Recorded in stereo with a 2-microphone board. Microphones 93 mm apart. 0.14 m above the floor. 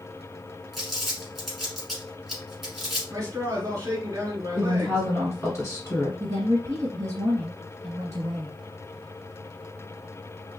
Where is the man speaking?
25° right (ahead or behind), 1.7 m.